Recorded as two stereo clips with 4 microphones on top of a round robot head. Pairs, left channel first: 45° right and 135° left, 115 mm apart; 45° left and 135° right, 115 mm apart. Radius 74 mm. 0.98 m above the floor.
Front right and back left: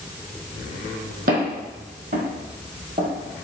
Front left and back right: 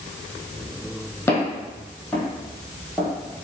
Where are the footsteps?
120° left, 1.9 m; by 3.1 s 145° left, 1.2 m.